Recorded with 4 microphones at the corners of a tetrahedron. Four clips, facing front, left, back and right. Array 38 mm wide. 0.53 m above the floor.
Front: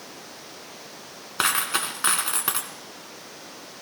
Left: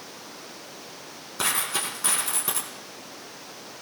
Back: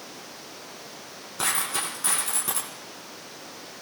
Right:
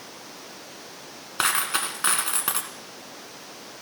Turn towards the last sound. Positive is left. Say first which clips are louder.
# right 3 dB, front 4 dB
turn(degrees=-40)